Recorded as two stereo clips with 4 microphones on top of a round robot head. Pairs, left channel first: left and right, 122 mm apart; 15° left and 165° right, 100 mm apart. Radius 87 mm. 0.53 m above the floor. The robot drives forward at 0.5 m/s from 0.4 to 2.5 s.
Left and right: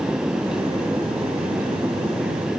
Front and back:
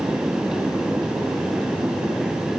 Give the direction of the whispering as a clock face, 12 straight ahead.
I don't hear whispering.